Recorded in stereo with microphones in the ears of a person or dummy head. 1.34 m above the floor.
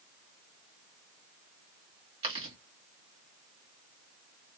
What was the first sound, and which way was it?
Chewing, 30° right (ahead or behind).